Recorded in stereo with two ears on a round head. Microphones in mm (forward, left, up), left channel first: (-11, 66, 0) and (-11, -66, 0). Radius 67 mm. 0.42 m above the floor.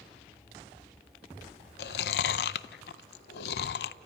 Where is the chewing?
75° left (ahead or behind), 0.6 m.